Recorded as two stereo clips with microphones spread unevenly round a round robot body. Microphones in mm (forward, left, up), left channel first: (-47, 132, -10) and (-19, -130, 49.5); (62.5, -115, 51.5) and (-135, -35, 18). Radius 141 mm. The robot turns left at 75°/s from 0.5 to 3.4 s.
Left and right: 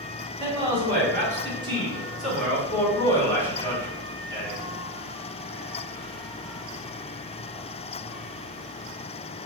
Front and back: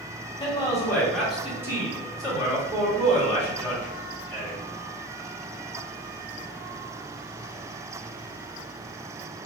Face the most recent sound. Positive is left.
turn(degrees=65)